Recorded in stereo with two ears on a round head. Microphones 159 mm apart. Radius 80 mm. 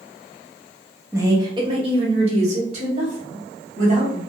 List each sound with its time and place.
1.1 s a woman speaking: 15° right (ahead or behind), 0.8 m; by 4.2 s 45° right (ahead or behind), 1.9 m